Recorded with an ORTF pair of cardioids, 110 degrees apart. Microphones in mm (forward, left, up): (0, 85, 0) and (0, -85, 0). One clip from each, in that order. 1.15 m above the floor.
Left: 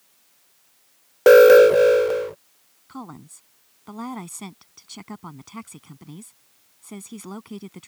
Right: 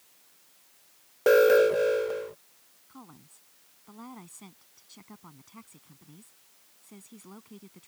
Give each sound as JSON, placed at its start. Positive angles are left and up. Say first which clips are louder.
{"t": 1.3, "sound": "an alarm", "louder": "left 10 dB", "azimuth_deg": 45}
{"t": 2.9, "sound": "a woman speaking", "louder": "left 13 dB", "azimuth_deg": 65}